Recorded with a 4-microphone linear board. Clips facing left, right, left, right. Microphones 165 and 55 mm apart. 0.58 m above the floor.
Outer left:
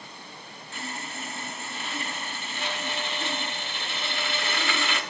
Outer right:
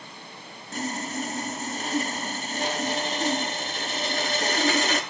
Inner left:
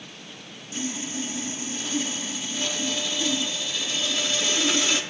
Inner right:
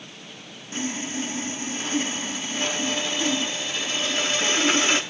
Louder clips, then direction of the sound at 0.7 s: Outer right 8 dB, inner right 2 dB; 40° right (ahead or behind).